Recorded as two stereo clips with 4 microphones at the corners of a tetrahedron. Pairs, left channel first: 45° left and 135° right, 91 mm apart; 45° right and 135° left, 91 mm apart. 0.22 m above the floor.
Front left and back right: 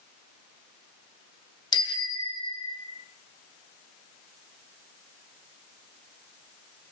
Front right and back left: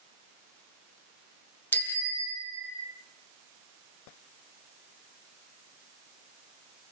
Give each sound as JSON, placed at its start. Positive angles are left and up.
{"t": 1.7, "sound": "a bicycle bell", "azimuth_deg": 20, "distance_m": 4.5}